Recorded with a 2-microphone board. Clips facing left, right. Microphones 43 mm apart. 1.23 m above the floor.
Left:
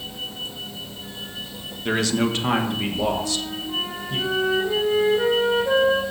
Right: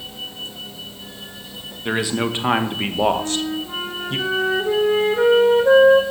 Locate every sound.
1.9 s a man speaking: 10° right (ahead or behind), 1.6 m; by 4.2 s 65° right (ahead or behind), 1.3 m
3.2 s a flute: 50° right (ahead or behind), 3.5 m